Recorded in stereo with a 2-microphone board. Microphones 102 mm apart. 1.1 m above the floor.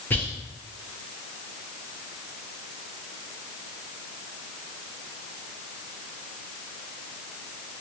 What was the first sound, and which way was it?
Whispering, 20° left (ahead or behind).